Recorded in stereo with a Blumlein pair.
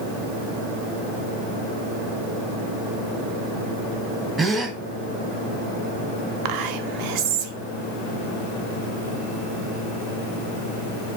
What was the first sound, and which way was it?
A gasp, 15° right.